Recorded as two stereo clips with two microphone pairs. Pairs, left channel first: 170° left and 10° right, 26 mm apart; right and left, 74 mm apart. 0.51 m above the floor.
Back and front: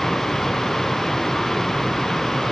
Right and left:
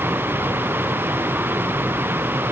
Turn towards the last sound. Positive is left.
No sound to turn to.